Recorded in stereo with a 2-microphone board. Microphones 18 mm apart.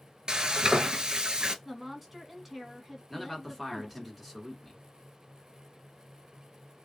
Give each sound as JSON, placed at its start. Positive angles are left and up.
{"t": 0.3, "sound": "frying", "side_deg": -60, "distance_m": 0.5}
{"t": 1.6, "sound": "a woman speaking", "side_deg": -15, "distance_m": 1.1}
{"t": 3.1, "sound": "a man speaking", "side_deg": -5, "distance_m": 1.5}